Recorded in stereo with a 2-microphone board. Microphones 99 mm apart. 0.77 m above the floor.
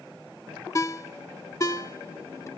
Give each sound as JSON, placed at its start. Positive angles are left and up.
{"t": 0.8, "sound": "a ringtone", "side_deg": 30, "distance_m": 0.8}